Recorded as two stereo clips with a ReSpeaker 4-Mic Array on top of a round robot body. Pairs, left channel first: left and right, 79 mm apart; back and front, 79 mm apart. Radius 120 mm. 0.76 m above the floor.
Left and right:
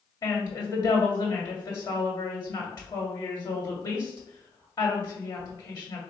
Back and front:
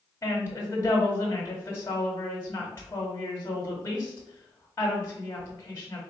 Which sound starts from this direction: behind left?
A woman speaking, at 0.2 s.